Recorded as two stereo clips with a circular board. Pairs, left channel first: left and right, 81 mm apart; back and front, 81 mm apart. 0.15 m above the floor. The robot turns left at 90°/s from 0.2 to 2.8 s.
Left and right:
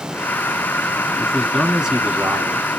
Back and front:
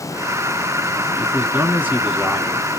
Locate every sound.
1.2 s a man speaking: 35° left, 1.0 m; by 2.7 s 100° right, 1.0 m